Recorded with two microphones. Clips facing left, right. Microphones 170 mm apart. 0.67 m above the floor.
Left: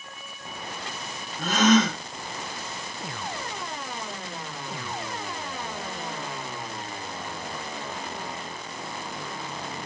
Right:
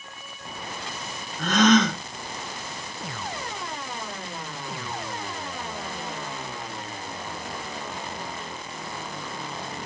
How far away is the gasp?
About 1.7 m.